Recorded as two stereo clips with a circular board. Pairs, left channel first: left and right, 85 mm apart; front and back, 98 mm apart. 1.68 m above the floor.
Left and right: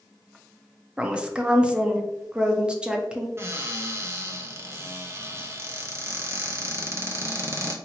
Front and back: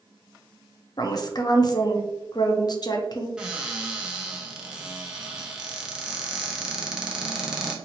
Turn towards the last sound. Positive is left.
turn(degrees=-105)